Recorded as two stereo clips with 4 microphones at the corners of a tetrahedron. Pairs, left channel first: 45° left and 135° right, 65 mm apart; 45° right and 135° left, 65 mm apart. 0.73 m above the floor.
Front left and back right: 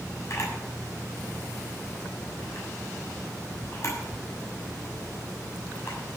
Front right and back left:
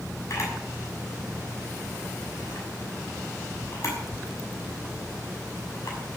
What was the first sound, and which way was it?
A camera shutter, straight ahead.